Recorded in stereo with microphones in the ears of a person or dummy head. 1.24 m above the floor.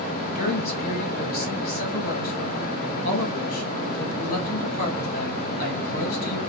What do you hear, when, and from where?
0.3 s a man speaking: 50° left (ahead or behind), 1.4 m